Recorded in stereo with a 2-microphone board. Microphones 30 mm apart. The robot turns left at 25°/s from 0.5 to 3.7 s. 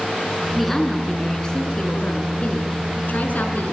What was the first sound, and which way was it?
A woman speaking, straight behind.